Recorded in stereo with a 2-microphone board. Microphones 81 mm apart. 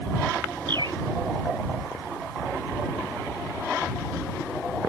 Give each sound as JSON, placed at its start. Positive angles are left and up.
{"t": 0.7, "sound": "a bird", "side_deg": -65}